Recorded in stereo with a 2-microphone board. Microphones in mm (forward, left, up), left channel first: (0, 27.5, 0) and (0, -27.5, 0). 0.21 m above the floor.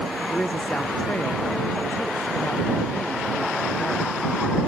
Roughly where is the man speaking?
Left.